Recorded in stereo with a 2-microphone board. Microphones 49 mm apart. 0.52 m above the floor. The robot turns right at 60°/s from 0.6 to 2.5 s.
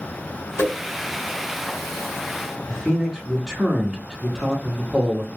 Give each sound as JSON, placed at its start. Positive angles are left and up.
{"t": 0.6, "sound": "a whoosh", "side_deg": 65, "distance_m": 1.2}
{"t": 2.7, "sound": "a man speaking", "side_deg": -15, "distance_m": 1.1}